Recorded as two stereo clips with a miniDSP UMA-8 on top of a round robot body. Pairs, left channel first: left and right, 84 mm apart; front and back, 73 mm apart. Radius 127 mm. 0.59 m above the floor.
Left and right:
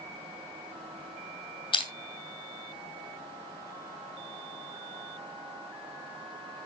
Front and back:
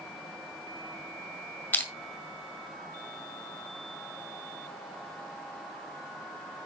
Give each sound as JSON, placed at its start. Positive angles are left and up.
{"t": 1.7, "sound": "crushing", "azimuth_deg": 70, "distance_m": 2.0}